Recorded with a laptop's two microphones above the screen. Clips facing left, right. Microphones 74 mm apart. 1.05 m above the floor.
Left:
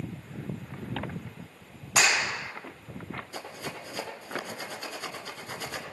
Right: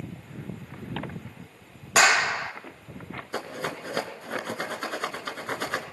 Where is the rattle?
55° right (ahead or behind), 2 m.